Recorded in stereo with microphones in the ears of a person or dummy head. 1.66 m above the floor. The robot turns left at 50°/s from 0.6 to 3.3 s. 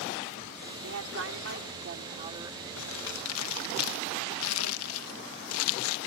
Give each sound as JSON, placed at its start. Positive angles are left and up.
{"t": 0.8, "sound": "a woman speaking", "azimuth_deg": -80}
{"t": 2.8, "sound": "crumpling", "side_deg": 70}